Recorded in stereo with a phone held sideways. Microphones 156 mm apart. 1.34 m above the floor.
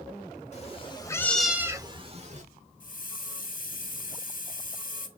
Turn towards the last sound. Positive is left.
turn(degrees=55)  # may be behind; listen again after turning